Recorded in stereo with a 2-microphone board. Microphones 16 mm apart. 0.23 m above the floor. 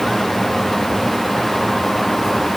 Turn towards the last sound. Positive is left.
No sound to turn to.